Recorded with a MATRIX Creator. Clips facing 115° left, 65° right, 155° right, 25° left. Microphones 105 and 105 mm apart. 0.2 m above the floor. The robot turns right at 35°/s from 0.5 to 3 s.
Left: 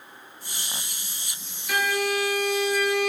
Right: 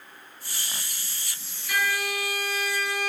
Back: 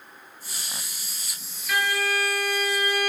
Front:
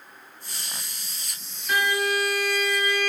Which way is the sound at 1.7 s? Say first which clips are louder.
Left 3 dB, front 2 dB; 80° left.